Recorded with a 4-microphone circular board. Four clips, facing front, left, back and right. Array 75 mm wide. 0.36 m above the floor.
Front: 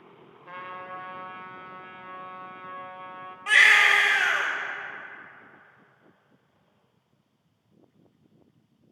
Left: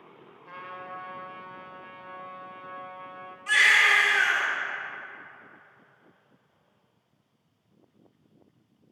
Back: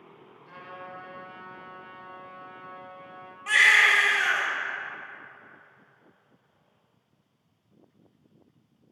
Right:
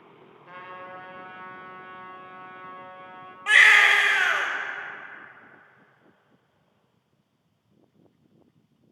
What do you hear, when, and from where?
0.5 s a trumpet: 5° right, 0.6 m
3.5 s a baby crying: 75° right, 0.8 m